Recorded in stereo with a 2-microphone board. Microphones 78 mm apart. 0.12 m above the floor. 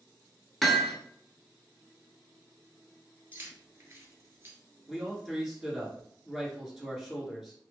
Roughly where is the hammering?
Centre.